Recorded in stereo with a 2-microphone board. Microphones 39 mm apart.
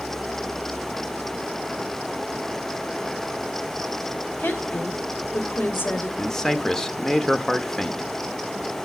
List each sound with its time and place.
4.4 s a woman speaking: 60° left (ahead or behind), 2.5 m
6.2 s a man speaking: 15° left (ahead or behind), 1.1 m